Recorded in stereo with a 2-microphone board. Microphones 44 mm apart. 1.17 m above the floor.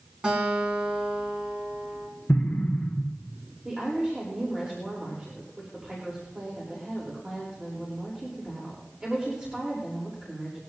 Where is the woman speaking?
25° right (ahead or behind), 3.5 m.